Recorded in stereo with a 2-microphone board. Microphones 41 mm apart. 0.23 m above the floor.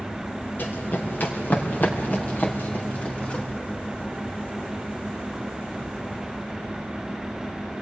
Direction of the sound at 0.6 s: 50° left (ahead or behind).